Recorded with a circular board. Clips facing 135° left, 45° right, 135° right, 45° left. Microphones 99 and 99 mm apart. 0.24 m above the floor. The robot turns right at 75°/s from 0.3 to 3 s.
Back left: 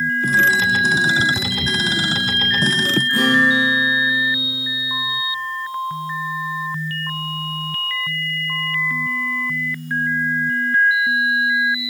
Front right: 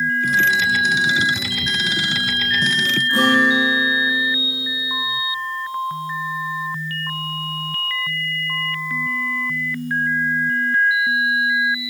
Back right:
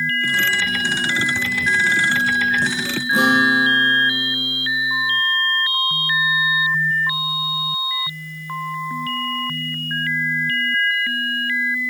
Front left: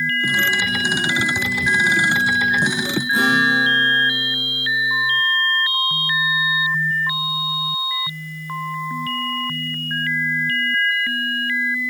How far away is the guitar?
About 10 m.